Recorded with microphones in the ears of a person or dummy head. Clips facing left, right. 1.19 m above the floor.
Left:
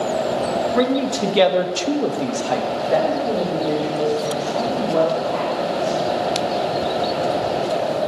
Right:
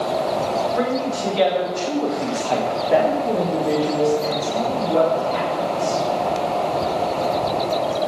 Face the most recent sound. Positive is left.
turn(degrees=-30)  # may be behind; listen again after turning